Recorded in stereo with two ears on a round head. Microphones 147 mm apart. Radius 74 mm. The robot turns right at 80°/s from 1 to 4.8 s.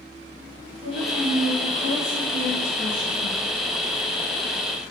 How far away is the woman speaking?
About 2.5 m.